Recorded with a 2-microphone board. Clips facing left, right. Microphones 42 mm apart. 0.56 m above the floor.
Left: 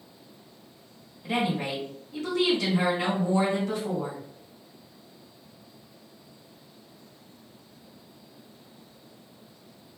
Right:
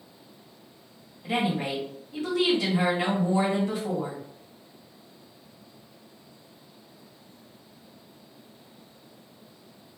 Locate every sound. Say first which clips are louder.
1.2 s a woman speaking: right 1 dB; 20° right (ahead or behind), 1.2 m